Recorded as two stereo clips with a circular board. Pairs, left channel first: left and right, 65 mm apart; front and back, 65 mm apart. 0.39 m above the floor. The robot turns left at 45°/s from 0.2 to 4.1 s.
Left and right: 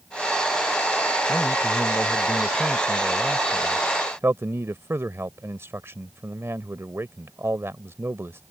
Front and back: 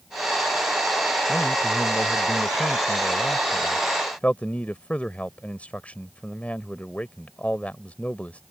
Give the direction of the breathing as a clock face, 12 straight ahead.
No breathing in this recording.